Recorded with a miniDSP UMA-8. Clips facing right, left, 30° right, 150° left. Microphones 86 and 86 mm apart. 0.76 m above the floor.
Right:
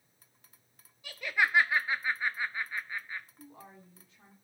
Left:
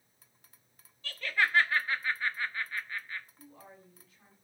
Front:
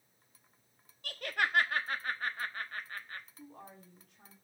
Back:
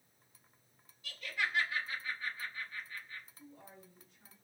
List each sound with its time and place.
1.0 s laughter: 15° right, 1.1 m
3.4 s a woman speaking: 30° right, 7 m